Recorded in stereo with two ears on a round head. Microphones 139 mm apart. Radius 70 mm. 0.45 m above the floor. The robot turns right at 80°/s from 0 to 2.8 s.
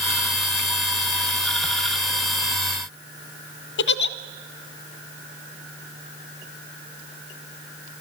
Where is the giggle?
75° left (ahead or behind), 0.8 m.